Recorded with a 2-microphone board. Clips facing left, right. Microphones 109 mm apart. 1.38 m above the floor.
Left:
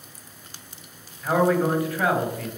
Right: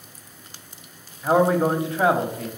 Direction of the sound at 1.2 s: 25° right (ahead or behind).